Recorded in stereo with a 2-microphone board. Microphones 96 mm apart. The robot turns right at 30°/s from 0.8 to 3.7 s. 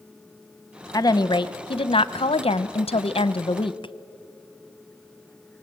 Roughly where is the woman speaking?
Ahead left.